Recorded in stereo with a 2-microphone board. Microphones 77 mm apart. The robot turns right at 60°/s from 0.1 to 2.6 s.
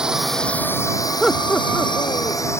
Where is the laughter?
Centre (ahead or behind); by 2.6 s 80° left.